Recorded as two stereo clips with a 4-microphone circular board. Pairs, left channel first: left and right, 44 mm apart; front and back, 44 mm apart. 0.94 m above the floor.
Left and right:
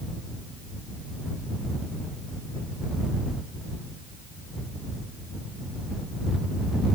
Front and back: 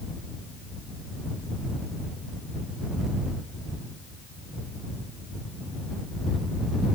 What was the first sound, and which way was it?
Only background noise.